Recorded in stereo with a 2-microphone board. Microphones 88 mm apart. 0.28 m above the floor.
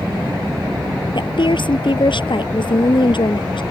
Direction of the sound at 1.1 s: 65° left (ahead or behind).